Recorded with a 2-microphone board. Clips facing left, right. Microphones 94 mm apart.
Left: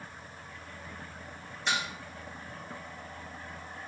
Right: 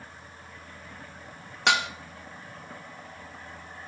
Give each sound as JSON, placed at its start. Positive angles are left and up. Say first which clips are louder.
{"t": 1.7, "sound": "dishes clattering", "louder": "right 8 dB", "side_deg": -70, "distance_m": 0.8}